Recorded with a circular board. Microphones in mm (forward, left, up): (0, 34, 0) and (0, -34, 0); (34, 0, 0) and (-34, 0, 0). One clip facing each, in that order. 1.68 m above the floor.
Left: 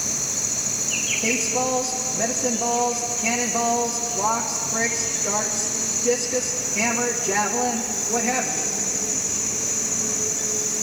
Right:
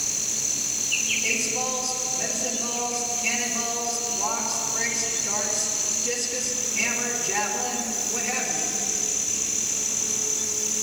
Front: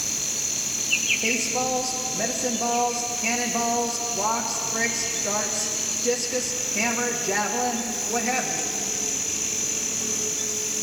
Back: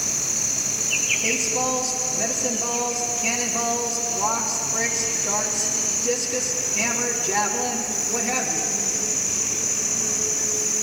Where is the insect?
110° left, 1.5 m.